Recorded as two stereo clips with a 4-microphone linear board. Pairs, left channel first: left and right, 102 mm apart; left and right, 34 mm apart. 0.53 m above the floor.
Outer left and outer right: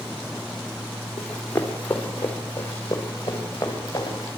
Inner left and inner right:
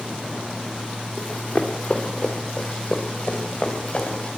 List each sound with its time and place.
1.2 s running footsteps: 10° left (ahead or behind), 3.5 m; by 4.3 s 30° left (ahead or behind), 4.5 m